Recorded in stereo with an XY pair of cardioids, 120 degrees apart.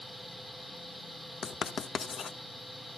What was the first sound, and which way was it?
A machine running, 10° right.